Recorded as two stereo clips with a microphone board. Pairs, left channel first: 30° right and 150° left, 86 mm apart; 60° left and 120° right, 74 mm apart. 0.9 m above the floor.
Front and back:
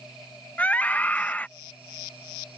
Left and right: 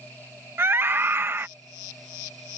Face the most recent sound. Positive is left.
turn(degrees=-90)